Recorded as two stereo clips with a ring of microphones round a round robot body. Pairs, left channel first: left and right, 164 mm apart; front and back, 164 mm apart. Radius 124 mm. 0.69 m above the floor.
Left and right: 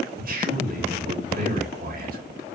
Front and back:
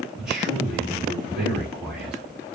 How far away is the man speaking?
About 2 m.